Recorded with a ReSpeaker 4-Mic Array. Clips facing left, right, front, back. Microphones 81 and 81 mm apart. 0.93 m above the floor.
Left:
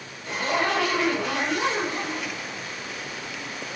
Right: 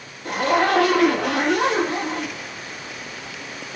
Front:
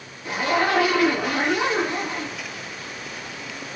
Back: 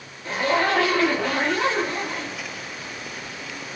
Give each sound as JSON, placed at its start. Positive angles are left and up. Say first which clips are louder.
{"t": 0.2, "sound": "a zipper", "louder": "right 6 dB, even", "azimuth_deg": -75, "distance_m": 2.5}